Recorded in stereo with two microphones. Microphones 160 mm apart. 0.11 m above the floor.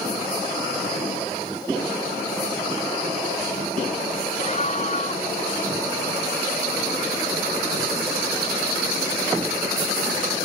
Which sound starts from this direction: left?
A scream, at 4.4 s.